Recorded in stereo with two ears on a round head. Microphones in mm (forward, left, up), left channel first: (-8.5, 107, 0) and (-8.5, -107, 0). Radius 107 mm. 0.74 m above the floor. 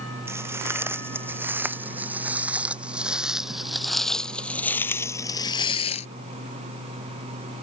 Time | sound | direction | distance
0.3 | footsteps | 10° right (ahead or behind) | ?